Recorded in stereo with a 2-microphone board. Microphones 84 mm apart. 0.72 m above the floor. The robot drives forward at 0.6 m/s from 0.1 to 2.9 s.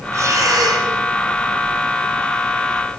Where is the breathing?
35° right (ahead or behind), 1.6 m; by 0.9 s 50° right (ahead or behind), 1.2 m.